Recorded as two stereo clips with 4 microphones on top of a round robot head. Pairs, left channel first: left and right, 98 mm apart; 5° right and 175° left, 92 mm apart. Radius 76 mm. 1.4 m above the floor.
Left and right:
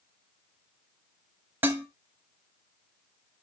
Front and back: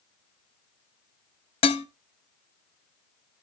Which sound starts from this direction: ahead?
Dishes clattering, at 1.6 s.